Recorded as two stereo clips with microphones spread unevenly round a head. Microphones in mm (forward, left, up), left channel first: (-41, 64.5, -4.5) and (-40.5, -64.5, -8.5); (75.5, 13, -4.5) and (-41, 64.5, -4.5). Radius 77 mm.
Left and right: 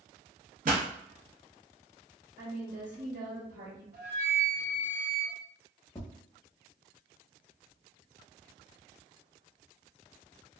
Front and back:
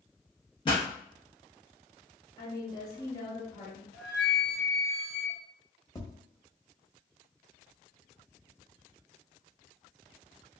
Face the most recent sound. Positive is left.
turn(degrees=30)